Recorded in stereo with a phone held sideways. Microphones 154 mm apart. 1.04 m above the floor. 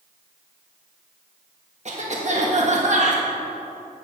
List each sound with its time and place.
1.9 s a cough: 50° right (ahead or behind), 1.6 m